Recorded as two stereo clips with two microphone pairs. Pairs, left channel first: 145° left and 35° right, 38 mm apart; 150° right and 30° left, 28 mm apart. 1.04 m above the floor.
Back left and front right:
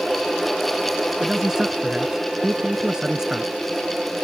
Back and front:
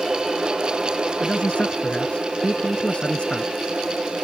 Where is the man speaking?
110° right.